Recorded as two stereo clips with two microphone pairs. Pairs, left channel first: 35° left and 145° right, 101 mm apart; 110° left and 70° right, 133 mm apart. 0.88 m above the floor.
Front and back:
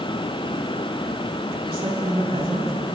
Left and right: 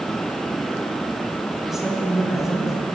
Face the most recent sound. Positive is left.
turn(degrees=-155)